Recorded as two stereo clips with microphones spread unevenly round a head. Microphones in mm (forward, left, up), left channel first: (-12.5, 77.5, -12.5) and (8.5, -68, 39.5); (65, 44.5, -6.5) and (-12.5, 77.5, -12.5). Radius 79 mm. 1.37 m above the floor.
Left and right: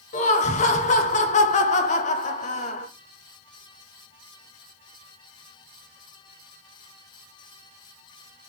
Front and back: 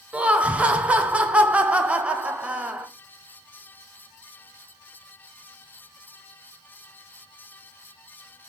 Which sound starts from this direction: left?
Laughter, at 0.1 s.